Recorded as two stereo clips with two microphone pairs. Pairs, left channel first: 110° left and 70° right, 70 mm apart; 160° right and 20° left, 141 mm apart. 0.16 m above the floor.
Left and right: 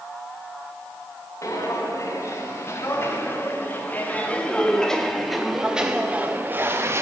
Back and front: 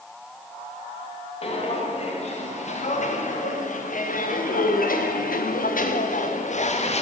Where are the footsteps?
155° left, 3 m; by 7.0 s 120° right, 1.5 m.